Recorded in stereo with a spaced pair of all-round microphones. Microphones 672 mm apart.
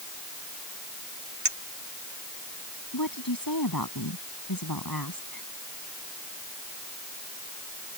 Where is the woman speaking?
30° left (ahead or behind).